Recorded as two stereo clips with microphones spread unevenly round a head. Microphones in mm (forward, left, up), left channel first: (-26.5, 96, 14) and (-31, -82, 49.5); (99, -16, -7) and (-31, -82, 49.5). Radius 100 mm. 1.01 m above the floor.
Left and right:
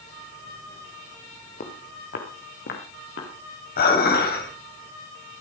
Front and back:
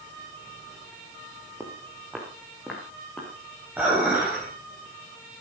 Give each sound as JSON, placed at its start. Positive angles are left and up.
{"t": 1.6, "sound": "footsteps", "azimuth_deg": 135, "distance_m": 3.0}
{"t": 3.8, "sound": "dishes clattering", "azimuth_deg": 125, "distance_m": 4.5}